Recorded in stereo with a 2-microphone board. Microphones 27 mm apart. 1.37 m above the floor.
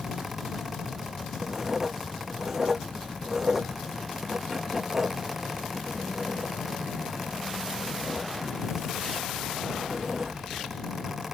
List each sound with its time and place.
1.4 s writing: 15° right (ahead or behind)